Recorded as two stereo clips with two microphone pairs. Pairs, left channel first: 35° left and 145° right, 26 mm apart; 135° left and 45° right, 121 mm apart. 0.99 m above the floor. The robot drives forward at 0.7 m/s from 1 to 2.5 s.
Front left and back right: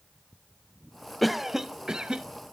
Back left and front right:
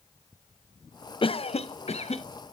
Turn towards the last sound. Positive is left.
turn(degrees=160)